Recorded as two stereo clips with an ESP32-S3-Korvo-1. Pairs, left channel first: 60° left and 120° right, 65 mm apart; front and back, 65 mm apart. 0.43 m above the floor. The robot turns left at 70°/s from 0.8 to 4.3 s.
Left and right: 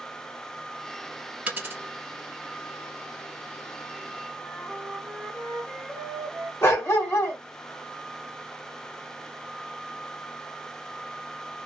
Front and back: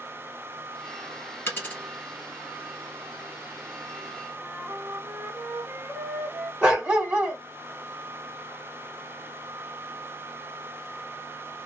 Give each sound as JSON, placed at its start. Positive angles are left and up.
{"t": 1.5, "sound": "a dropped coin", "azimuth_deg": -50, "distance_m": 1.3}
{"t": 4.4, "sound": "a flute", "azimuth_deg": 165, "distance_m": 1.0}
{"t": 6.6, "sound": "a dog barking", "azimuth_deg": 110, "distance_m": 1.4}